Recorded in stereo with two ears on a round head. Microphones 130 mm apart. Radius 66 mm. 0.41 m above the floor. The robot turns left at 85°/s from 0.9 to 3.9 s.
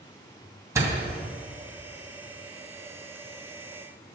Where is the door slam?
20° right (ahead or behind), 2 m; by 1.0 s 10° right (ahead or behind), 2 m.